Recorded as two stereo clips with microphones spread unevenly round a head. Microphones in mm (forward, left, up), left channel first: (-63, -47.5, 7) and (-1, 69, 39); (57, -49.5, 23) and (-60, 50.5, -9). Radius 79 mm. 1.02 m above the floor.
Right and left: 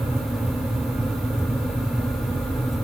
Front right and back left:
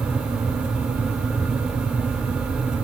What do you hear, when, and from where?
Only background noise.